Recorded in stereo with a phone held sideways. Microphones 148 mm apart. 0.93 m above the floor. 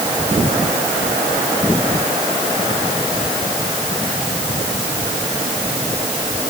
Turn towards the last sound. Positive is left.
No sound to turn to.